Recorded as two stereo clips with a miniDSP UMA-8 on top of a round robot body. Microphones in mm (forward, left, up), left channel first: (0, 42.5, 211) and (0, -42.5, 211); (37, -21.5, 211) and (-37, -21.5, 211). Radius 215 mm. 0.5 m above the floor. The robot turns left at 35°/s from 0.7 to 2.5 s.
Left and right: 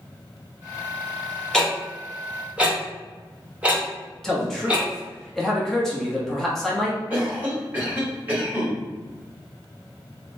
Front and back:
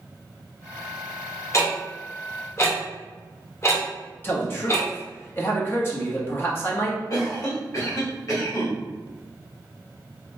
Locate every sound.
1.5 s ticking: 10° left, 1.4 m; by 4.9 s 20° right, 1.4 m
4.2 s a man speaking: 10° left, 1.2 m
7.1 s a cough: 20° right, 1.8 m